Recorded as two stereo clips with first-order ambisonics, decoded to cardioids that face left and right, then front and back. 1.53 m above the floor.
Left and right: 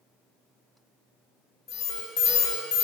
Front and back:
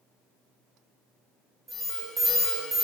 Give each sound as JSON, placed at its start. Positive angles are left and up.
{"t": 1.7, "sound": "an alarm", "azimuth_deg": 115, "distance_m": 1.4}